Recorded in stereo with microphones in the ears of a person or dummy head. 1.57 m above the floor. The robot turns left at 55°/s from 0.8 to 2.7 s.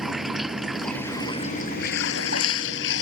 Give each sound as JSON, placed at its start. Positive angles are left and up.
{"t": 0.0, "sound": "running water", "azimuth_deg": 175}